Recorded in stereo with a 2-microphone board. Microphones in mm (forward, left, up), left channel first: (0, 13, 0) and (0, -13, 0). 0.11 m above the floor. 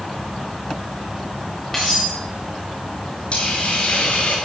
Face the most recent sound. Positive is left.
turn(degrees=45)  # may be behind; listen again after turning